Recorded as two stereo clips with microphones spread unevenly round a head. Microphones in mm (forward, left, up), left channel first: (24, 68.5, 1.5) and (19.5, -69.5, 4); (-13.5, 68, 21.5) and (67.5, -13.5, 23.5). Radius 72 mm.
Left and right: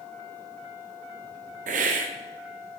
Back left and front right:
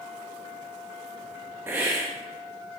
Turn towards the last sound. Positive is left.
turn(degrees=-120)